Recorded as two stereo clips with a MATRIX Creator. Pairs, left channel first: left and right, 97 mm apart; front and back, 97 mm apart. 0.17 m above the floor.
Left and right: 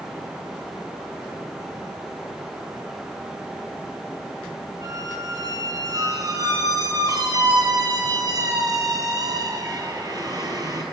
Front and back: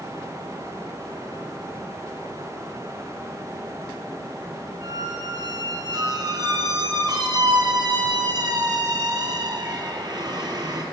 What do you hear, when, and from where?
4.8 s a squeak: 135° right, 1.8 m